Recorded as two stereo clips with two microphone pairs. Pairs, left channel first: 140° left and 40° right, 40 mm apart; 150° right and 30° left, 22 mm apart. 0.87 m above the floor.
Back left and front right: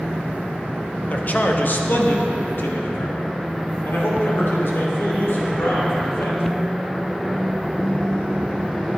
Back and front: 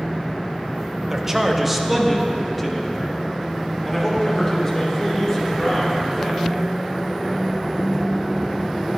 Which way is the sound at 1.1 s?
90° left.